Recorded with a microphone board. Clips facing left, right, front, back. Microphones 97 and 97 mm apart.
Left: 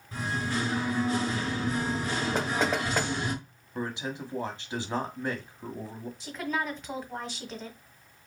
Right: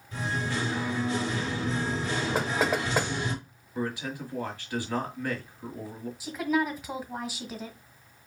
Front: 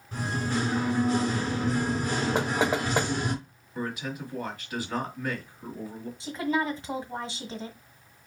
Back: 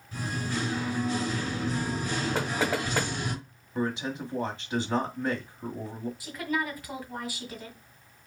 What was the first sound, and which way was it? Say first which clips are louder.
Singing: even, front 3 dB; 40° left.